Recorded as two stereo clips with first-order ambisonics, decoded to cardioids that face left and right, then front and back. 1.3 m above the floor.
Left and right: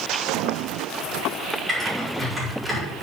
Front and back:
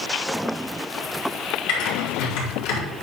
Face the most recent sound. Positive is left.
turn(degrees=-5)